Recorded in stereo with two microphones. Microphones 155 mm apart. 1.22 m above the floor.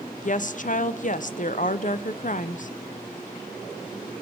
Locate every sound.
0.2 s a woman speaking: 55° left (ahead or behind), 0.6 m